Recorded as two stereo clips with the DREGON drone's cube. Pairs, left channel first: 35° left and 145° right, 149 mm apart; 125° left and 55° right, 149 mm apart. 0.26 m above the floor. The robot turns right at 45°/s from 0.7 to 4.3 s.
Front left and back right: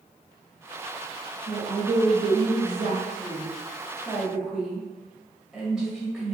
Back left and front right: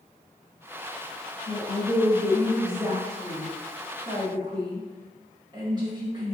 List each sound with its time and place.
1.5 s a woman speaking: 170° left, 1.0 m; by 6.3 s 60° right, 1.0 m